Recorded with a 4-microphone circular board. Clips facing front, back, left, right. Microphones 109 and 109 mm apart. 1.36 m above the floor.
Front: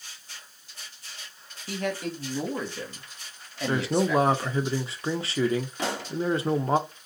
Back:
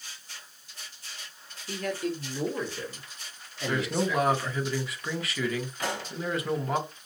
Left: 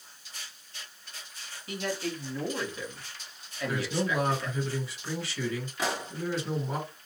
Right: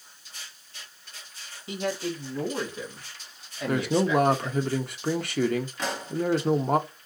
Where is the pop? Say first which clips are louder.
Front 2 dB, even; 5° left, 1.3 m.